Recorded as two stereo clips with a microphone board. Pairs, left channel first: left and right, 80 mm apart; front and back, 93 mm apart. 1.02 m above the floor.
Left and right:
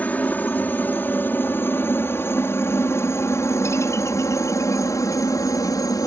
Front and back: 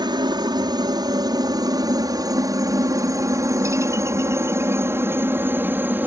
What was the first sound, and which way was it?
A helicopter, 155° left.